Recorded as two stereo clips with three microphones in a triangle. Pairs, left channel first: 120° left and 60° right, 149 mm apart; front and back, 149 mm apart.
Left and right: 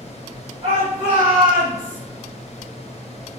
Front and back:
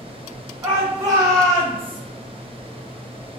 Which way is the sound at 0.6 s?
120° right.